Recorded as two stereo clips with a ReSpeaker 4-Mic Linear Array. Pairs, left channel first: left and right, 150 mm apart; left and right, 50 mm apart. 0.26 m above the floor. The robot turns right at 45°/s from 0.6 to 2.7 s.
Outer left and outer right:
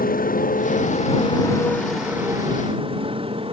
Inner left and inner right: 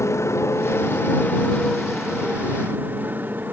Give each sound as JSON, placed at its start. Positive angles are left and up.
{"t": 0.0, "sound": "a motorcycle", "side_deg": 70}